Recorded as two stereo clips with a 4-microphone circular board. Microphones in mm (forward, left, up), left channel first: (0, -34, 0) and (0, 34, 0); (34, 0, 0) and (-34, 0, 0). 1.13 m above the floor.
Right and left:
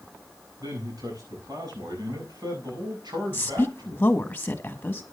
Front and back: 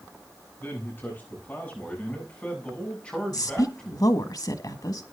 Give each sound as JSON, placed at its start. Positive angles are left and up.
{"t": 0.6, "sound": "a man speaking", "azimuth_deg": 60, "distance_m": 8.0}
{"t": 3.3, "sound": "a woman speaking", "azimuth_deg": -25, "distance_m": 1.5}